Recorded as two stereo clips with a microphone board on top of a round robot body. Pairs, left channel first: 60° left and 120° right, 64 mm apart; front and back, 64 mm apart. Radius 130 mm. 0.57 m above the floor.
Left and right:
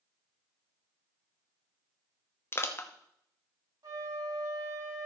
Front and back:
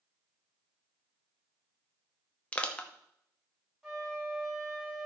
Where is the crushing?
60° left, 1.3 m.